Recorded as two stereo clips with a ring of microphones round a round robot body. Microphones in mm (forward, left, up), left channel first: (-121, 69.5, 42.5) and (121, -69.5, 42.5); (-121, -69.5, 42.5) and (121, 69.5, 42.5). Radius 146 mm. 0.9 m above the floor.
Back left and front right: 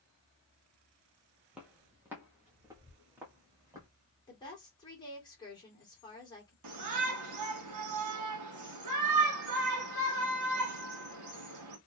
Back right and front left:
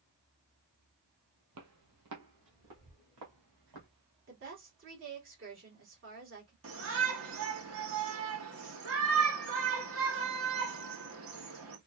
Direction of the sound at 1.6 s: 55° left.